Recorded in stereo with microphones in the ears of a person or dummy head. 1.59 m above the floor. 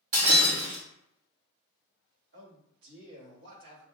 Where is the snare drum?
I don't hear a snare drum.